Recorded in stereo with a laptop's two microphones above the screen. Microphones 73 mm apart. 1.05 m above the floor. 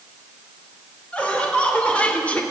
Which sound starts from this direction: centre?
Laughter, at 1.1 s.